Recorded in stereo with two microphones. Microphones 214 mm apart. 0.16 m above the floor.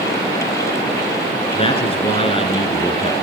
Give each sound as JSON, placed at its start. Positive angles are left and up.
{"t": 1.5, "sound": "a man speaking", "side_deg": 25, "distance_m": 1.8}